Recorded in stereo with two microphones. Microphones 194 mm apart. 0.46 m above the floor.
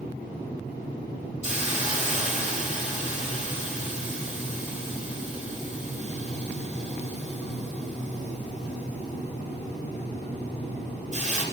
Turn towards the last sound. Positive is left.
turn(degrees=-35)  # may be behind; listen again after turning